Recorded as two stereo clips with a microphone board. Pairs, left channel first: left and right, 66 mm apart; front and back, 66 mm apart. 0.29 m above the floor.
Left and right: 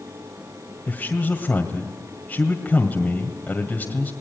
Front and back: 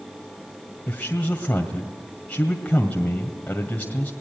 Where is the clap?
No clap in this recording.